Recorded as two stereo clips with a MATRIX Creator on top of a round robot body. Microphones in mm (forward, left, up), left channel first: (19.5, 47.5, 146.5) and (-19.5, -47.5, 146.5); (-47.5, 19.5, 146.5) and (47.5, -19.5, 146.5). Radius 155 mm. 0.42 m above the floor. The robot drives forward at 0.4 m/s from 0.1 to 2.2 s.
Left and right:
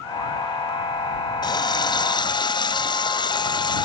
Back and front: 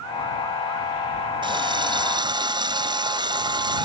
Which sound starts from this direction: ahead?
A running tap, at 1.4 s.